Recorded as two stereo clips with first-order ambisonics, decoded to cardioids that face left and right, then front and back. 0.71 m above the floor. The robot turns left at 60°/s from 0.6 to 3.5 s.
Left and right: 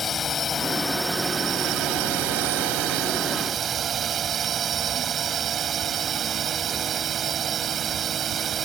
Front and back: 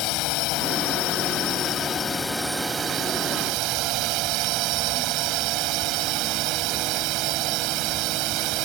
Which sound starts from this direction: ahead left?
A drone, at 0.0 s.